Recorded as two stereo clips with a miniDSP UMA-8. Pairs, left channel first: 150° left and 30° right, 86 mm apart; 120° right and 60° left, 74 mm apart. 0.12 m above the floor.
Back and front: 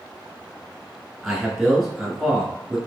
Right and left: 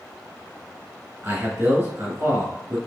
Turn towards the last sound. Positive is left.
turn(degrees=60)